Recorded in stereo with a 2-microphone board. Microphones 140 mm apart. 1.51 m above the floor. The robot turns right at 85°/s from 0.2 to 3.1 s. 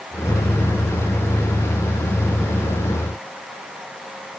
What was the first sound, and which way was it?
Only background noise.